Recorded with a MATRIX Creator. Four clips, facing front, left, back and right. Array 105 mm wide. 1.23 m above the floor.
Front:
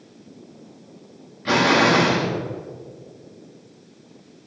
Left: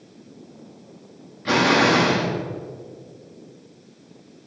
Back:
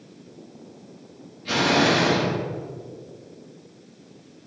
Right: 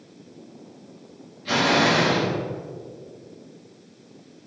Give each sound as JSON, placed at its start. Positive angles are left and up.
{"t": 1.4, "sound": "an explosion", "azimuth_deg": 45, "distance_m": 3.0}